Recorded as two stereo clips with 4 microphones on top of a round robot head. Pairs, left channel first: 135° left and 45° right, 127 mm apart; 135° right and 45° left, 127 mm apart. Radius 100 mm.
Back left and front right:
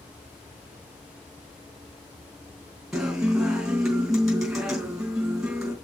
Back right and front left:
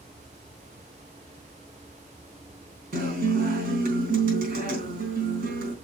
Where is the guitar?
40° left, 3.5 m.